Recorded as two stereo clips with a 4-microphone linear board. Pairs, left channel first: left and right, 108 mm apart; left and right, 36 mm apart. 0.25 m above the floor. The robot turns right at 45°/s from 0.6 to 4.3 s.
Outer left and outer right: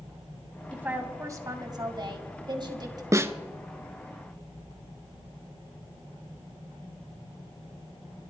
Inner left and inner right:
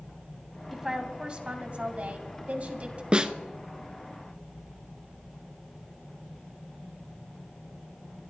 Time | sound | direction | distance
0.7 | a woman speaking | 160° right | 1.8 m
3.1 | a snare drum | 30° right (ahead or behind) | 0.6 m